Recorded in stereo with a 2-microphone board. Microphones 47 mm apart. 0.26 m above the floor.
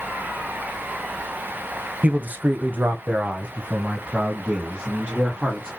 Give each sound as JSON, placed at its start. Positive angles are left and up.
{"t": 2.0, "sound": "a man speaking", "side_deg": -35, "distance_m": 1.2}